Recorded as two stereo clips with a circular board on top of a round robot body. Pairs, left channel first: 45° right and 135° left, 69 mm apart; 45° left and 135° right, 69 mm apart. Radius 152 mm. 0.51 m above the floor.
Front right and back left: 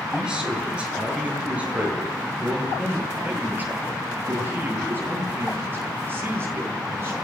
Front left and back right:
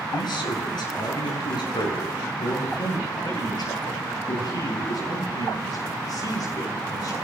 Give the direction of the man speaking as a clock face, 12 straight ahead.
10 o'clock.